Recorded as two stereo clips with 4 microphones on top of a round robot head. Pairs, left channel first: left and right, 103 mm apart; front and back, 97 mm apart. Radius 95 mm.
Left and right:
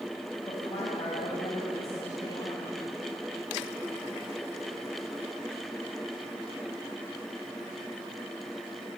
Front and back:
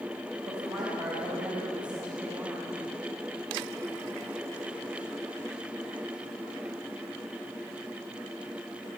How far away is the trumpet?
No trumpet in this recording.